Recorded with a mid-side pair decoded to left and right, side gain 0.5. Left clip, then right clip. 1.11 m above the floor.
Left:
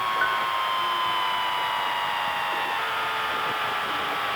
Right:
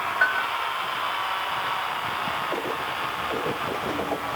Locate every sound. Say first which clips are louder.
0.2 s a bell: right 5 dB; 35° right, 3 m